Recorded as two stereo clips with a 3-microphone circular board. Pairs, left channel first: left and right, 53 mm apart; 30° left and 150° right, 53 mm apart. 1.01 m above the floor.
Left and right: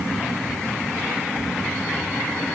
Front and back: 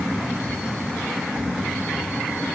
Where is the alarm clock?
No alarm clock in this recording.